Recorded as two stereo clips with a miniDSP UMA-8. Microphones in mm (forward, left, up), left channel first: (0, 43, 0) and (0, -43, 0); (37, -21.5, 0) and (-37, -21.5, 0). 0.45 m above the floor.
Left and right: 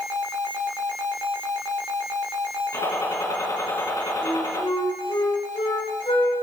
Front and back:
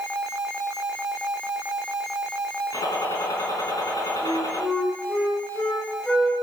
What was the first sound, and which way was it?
A gunshot, 40° left.